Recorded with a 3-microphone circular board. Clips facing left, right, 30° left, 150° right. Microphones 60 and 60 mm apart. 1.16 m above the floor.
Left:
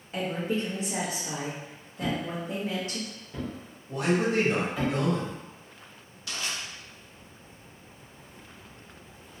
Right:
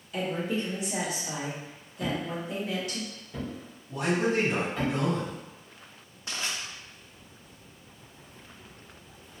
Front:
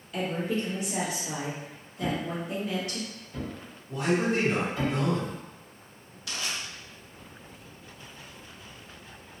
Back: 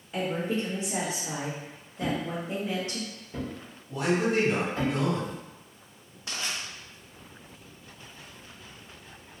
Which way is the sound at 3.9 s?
125° left.